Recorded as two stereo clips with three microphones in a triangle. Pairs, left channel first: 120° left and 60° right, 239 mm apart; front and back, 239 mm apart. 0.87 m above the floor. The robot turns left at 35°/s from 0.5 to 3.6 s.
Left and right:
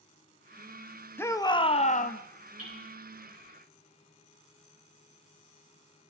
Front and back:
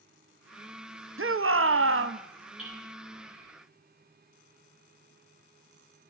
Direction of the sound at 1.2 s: 160° right.